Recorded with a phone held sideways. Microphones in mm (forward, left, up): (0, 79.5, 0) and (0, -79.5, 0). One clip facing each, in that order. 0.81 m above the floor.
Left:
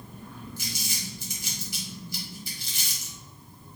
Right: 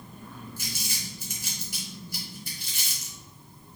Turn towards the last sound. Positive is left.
turn(degrees=-55)  # may be behind; listen again after turning